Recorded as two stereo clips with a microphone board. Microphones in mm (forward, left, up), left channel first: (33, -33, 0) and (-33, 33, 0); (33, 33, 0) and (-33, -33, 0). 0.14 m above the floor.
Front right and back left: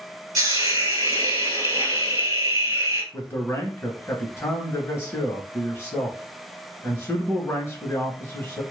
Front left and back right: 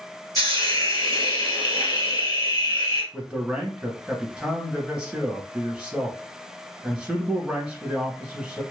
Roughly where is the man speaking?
Ahead right.